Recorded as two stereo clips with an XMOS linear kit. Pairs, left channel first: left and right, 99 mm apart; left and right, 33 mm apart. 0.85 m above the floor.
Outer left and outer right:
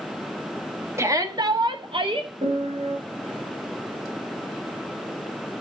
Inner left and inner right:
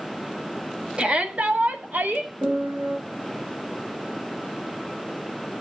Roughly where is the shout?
Right.